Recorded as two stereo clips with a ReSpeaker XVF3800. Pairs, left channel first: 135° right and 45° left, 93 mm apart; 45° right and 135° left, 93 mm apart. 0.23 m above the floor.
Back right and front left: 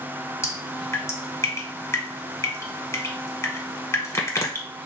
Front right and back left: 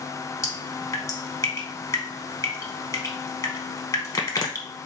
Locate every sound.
0.4 s dripping: 85° right, 0.8 m